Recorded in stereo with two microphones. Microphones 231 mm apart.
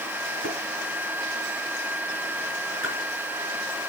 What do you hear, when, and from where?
0.4 s tapping: 45° right (ahead or behind), 3 m
2.8 s a splash: 60° left (ahead or behind), 4.5 m